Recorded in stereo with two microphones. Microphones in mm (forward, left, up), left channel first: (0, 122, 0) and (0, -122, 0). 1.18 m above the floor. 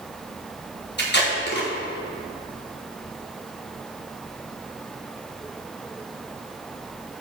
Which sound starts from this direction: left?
Tape being pulled, at 1.0 s.